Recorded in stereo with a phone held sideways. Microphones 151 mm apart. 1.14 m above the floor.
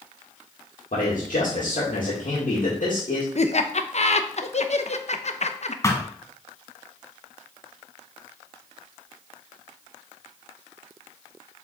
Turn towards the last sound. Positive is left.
turn(degrees=20)  # may be behind; listen again after turning